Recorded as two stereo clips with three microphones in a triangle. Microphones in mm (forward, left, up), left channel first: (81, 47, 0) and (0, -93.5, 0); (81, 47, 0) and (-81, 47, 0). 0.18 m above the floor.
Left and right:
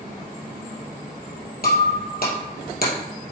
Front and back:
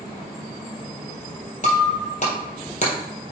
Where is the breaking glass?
40° left, 2.5 m.